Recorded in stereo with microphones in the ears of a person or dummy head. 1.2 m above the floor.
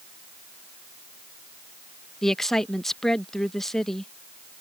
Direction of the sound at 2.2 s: 5° left (ahead or behind).